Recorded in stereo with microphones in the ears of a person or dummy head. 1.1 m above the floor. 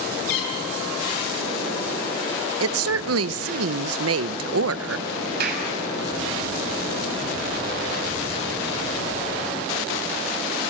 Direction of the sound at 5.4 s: 60° right (ahead or behind).